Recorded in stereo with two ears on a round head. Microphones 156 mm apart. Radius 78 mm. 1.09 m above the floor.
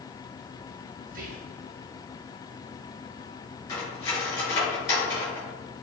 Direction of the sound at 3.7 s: 20° left (ahead or behind).